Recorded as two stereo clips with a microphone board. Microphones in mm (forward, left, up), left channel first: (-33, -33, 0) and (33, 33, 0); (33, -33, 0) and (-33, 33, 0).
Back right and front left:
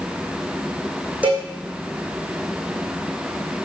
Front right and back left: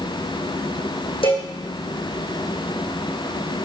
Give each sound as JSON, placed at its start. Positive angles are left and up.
{"t": 1.2, "sound": "a cowbell", "azimuth_deg": -30, "distance_m": 4.0}